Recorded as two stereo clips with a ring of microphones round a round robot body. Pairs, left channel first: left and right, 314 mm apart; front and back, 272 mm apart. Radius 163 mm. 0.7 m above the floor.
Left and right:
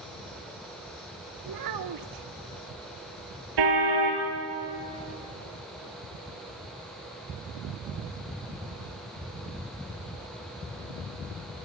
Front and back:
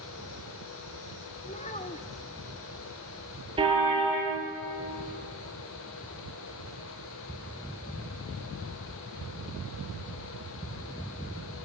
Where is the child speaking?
70° right, 1.3 m.